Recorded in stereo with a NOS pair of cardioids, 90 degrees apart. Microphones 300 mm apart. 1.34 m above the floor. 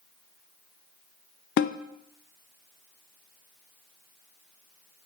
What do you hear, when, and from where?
1.6 s a snare drum: 40° left, 0.5 m